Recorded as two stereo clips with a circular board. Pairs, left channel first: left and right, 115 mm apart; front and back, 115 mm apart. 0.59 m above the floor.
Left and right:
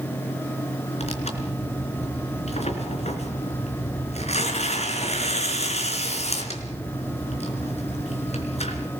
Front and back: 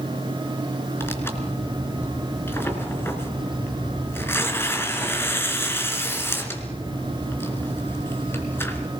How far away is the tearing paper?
About 3.5 m.